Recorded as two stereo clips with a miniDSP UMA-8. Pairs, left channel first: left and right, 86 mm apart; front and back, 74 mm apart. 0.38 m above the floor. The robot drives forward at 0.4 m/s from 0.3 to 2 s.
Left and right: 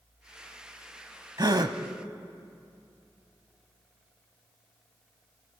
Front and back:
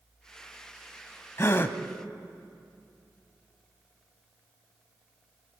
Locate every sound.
1.4 s a gasp: 50° right, 0.9 m; by 1.8 s 60° right, 0.8 m